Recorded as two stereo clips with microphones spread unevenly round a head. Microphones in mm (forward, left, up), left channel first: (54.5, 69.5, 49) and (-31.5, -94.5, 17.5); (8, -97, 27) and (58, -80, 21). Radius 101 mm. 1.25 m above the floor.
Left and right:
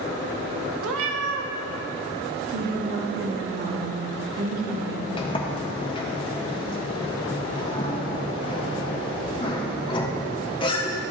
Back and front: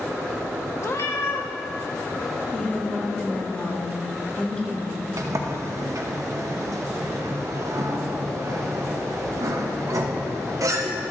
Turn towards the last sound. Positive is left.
turn(degrees=0)